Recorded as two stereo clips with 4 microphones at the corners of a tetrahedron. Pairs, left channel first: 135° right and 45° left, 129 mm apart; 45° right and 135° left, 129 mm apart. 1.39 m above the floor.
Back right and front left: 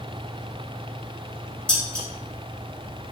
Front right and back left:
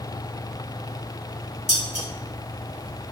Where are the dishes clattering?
145° left, 3 m.